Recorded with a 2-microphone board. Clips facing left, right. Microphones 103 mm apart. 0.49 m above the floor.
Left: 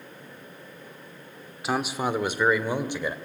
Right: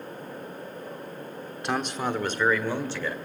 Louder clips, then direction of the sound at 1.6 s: Left 2 dB; 5° left (ahead or behind).